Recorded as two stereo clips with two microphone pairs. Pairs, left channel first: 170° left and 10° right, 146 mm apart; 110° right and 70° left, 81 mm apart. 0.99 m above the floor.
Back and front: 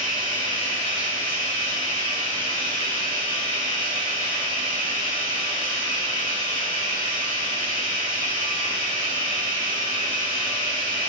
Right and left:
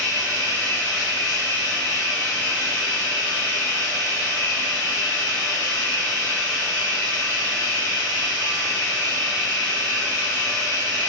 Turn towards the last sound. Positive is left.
turn(degrees=-165)